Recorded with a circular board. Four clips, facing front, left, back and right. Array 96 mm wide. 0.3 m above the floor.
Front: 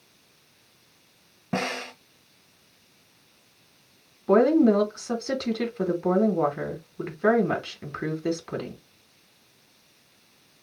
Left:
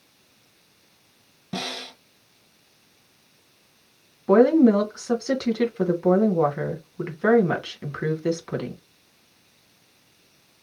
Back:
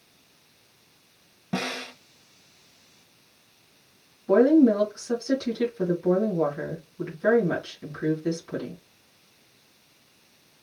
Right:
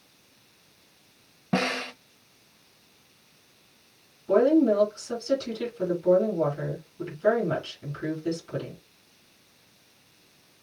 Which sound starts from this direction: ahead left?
A woman speaking, at 4.3 s.